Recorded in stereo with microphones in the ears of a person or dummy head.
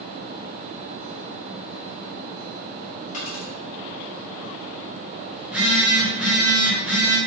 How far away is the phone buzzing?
About 1.2 m.